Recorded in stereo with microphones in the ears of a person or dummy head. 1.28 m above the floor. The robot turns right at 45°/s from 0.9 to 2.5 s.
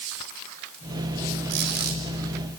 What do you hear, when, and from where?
1.5 s a squeak: 75° right (ahead or behind), 3.5 m; by 2.0 s 50° right (ahead or behind), 3.5 m